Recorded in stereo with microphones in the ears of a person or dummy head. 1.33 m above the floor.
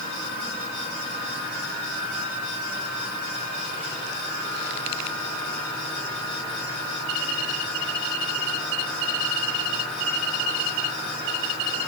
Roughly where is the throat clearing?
I don't hear throat clearing.